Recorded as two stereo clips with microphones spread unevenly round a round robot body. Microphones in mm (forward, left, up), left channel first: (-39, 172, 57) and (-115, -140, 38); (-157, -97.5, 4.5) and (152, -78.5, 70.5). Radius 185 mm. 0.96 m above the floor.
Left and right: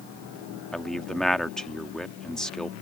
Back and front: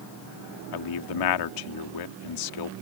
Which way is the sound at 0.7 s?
165° left.